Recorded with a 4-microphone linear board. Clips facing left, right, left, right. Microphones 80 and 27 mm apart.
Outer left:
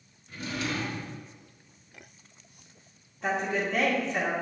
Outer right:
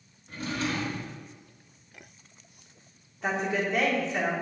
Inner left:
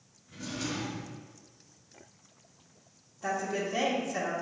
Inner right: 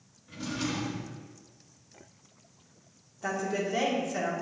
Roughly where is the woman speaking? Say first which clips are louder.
Even, inner right 1 dB; centre.